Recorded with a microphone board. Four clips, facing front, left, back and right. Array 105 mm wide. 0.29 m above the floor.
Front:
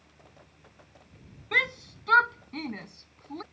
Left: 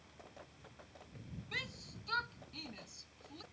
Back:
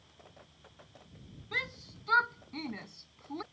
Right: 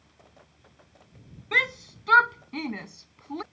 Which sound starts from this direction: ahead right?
A shout, at 1.5 s.